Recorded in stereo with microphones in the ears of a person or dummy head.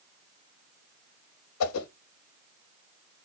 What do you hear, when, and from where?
1.6 s a whoosh: 90° left, 0.5 m